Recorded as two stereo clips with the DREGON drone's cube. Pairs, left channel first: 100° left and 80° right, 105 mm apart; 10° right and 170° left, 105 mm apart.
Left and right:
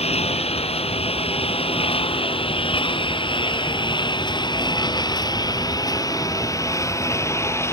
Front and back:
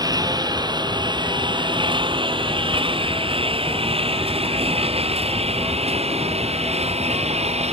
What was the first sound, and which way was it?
A lawn mower, 120° left.